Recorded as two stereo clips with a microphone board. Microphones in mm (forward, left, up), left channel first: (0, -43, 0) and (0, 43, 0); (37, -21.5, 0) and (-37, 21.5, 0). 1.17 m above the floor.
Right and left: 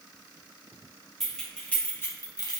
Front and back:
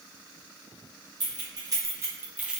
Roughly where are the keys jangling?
Behind.